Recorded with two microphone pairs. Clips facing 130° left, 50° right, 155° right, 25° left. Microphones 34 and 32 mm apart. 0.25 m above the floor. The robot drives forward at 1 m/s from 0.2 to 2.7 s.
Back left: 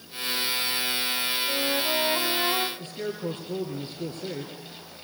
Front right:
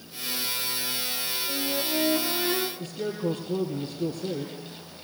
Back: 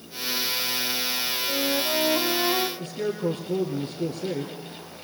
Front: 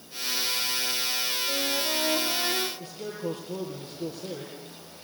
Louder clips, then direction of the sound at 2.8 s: Front right 2 dB, back 7 dB; 170° left.